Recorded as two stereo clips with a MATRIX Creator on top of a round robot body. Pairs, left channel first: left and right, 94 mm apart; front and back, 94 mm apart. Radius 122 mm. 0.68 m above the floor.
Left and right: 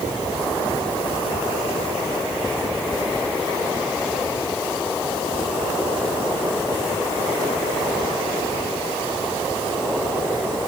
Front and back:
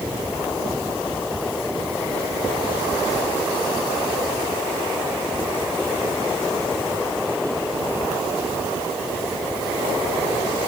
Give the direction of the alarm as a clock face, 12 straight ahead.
No alarm in this recording.